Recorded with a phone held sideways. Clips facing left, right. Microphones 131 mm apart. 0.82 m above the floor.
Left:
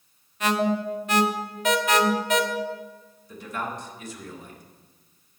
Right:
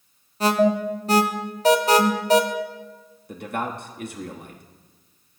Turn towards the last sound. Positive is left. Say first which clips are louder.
# right 4 dB
turn(degrees=-60)  # may be behind; listen again after turning